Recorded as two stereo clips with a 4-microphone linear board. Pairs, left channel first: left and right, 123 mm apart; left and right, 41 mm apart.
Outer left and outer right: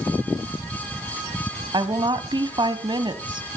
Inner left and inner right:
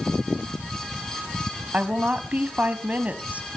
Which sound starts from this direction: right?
A woman speaking, at 1.7 s.